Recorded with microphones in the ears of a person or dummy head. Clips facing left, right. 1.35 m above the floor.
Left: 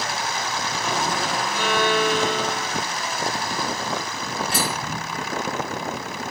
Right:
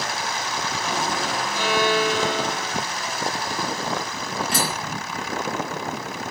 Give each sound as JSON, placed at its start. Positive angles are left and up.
{"t": 1.5, "sound": "a violin", "side_deg": 50, "distance_m": 1.5}
{"t": 4.5, "sound": "cutlery clinking", "side_deg": -65, "distance_m": 1.4}